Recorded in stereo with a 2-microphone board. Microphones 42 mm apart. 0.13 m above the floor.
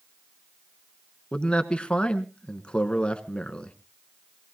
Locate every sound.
1.3 s a man speaking: 25° left (ahead or behind), 1.2 m